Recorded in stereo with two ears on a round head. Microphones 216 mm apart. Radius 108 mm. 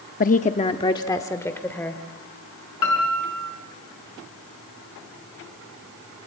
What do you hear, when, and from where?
0.2 s a woman speaking: 35° left (ahead or behind), 0.7 m; by 2.0 s 10° left (ahead or behind), 2 m
2.8 s a piano: 85° left, 6 m